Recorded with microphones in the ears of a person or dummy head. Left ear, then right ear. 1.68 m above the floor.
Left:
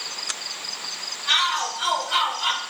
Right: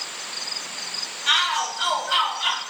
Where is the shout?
70° right (ahead or behind), 2 m; by 2.6 s 45° right (ahead or behind), 3.5 m.